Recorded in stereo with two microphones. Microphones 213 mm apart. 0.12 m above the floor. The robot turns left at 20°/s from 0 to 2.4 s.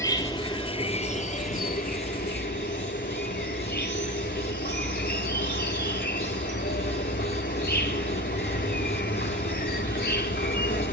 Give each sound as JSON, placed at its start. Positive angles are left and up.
{"t": 0.0, "sound": "an insect", "azimuth_deg": 160, "distance_m": 0.9}